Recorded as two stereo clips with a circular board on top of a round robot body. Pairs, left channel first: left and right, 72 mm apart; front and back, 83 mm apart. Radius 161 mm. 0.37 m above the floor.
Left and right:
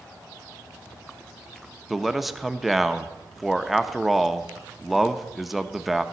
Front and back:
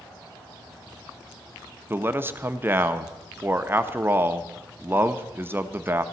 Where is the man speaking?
175° right, 0.9 m.